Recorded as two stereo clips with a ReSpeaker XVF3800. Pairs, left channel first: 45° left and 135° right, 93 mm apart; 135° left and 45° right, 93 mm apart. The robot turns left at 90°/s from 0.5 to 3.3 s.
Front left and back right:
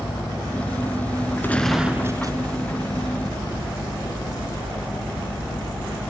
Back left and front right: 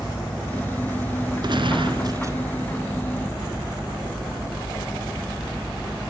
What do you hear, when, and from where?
1.4 s a gunshot: 20° right, 1.6 m; by 2.4 s 105° right, 1.6 m